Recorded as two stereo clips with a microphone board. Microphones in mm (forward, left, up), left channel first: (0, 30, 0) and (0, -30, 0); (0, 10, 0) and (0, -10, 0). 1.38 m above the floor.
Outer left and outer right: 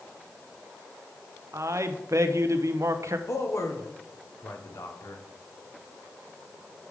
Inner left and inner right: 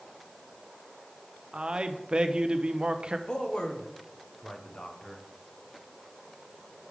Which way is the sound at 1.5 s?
55° right (ahead or behind).